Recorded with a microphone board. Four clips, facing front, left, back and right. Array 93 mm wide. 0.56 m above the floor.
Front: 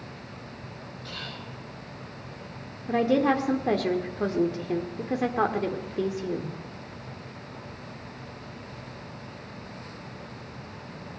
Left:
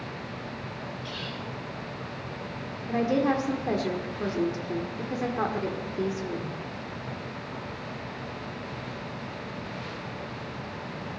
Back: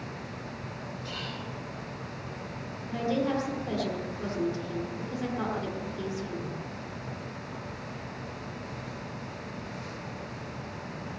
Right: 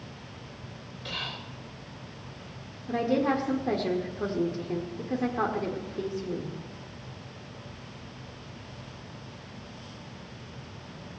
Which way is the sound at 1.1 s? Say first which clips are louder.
Left 2 dB, even; 105° right.